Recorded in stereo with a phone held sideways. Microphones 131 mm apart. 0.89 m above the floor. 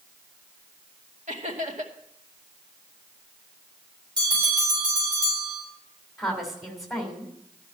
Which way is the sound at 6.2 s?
Centre (ahead or behind).